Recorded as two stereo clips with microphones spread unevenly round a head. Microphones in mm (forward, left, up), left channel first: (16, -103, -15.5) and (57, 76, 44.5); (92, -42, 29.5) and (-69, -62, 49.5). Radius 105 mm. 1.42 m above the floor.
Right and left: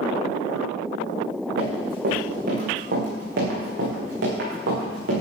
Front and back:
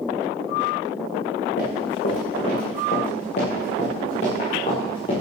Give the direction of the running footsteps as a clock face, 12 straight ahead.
10 o'clock.